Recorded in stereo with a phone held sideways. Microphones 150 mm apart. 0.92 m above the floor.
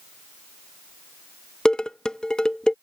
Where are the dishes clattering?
5° left (ahead or behind).